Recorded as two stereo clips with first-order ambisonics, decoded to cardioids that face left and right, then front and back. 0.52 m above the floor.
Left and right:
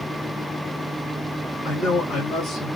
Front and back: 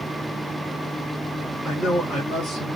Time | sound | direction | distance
1.6 | a man speaking | 55° left | 1.6 m